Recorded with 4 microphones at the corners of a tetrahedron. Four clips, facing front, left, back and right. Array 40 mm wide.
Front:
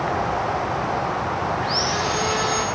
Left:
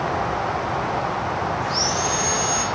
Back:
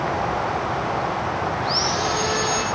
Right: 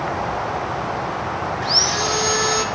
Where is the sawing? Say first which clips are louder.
Right 3 dB, even; 95° right, 2 m.